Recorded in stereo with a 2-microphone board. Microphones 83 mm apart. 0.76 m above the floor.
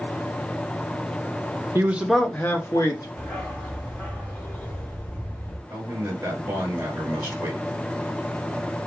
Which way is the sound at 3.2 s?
20° left (ahead or behind).